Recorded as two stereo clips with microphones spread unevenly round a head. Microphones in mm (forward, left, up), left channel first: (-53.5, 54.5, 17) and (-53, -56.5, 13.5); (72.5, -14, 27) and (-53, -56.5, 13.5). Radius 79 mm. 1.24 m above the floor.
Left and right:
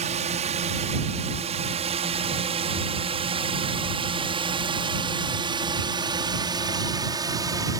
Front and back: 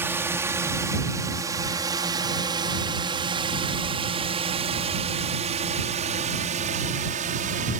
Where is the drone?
90° right; by 7.8 s 145° right.